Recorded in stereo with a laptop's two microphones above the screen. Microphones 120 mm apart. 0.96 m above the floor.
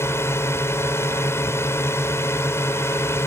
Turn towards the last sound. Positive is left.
turn(degrees=20)  # may be behind; listen again after turning